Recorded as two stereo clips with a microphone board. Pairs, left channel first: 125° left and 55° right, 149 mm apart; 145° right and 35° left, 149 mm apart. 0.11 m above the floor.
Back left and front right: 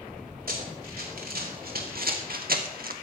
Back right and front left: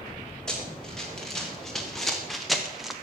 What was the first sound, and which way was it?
Running footsteps, 60° right.